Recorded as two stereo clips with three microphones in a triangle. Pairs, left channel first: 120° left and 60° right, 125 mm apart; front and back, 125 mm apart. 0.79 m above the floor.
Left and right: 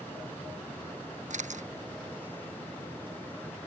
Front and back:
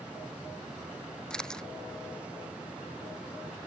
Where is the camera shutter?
85° right.